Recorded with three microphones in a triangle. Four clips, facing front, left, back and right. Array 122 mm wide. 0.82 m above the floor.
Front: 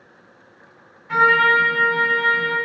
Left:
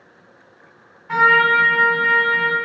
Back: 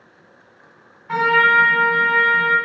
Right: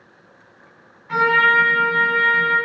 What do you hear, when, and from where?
1.1 s a trumpet: 155° left, 1.3 m